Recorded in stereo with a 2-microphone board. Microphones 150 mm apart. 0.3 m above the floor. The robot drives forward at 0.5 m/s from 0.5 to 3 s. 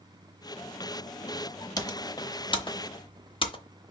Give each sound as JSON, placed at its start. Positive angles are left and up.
{"t": 1.8, "sound": "typing on a keyboard", "side_deg": 25, "distance_m": 0.9}